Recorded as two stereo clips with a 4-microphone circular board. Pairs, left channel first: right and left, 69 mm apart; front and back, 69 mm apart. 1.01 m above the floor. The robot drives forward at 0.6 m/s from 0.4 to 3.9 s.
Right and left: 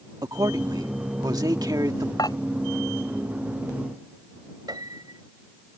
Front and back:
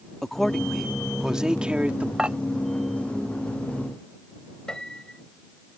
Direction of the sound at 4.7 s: 80° left.